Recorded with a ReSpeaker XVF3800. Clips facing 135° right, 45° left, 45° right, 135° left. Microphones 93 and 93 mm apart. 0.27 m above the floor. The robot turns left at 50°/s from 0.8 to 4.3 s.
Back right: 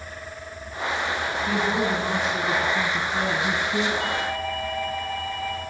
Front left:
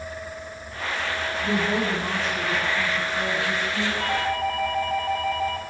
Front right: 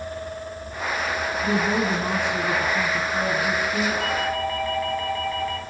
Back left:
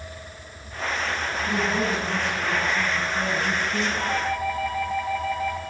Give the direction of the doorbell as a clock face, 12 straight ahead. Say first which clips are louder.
Front left 2 dB, front right 1 dB; 9 o'clock.